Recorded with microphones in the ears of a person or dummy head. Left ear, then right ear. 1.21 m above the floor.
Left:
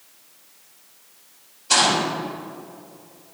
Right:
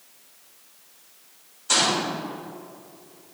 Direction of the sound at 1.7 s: 50° right (ahead or behind).